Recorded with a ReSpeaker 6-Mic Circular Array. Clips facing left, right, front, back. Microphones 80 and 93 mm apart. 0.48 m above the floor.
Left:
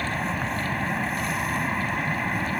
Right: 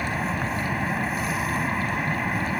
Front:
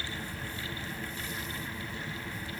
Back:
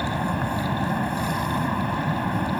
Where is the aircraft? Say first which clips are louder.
Right 1 dB, back 15 dB; straight behind.